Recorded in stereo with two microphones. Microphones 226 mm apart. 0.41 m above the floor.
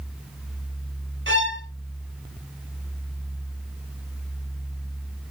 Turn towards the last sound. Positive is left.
turn(degrees=-60)  # may be behind; listen again after turning